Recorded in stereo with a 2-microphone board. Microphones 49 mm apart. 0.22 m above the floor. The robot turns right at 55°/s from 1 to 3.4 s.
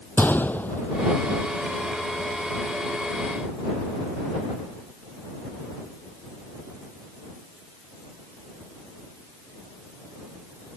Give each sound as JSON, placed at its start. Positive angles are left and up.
{"t": 0.2, "sound": "a gunshot", "side_deg": 40}